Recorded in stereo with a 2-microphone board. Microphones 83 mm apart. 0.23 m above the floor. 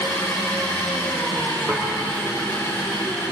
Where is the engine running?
40° left (ahead or behind), 7.5 m.